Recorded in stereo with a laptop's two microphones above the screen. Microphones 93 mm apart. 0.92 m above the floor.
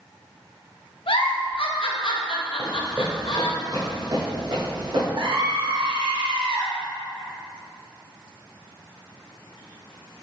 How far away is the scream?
About 1.3 m.